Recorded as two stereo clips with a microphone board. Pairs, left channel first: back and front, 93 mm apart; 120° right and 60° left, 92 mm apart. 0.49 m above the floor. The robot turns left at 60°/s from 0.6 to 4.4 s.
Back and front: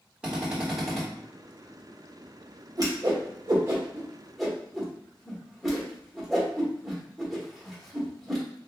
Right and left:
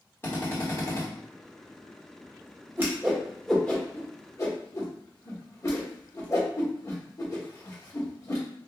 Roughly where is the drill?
Right.